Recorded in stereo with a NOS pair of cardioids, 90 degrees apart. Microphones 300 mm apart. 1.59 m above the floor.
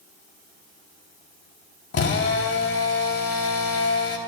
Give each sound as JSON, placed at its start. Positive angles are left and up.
{"t": 1.9, "sound": "a drill", "azimuth_deg": 50, "distance_m": 3.0}